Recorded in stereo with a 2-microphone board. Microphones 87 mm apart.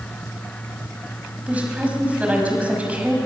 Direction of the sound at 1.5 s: 15° right (ahead or behind).